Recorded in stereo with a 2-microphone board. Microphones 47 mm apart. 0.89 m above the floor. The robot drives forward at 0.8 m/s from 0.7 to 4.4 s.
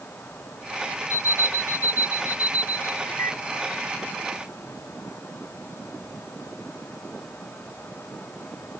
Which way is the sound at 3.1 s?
60° left (ahead or behind).